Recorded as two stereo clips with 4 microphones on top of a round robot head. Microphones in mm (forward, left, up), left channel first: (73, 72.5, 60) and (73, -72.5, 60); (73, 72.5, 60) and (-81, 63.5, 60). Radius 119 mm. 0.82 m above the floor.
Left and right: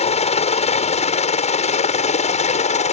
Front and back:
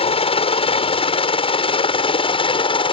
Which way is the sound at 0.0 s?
50° left.